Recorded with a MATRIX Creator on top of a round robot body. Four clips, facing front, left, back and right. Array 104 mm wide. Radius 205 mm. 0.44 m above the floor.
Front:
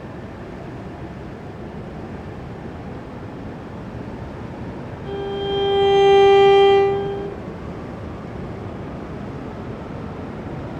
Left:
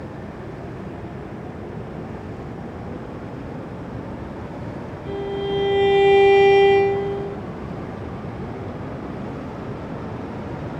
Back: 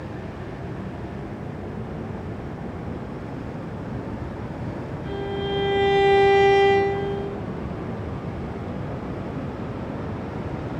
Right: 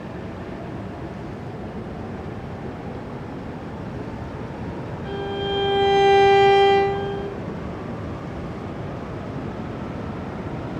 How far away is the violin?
About 1.7 m.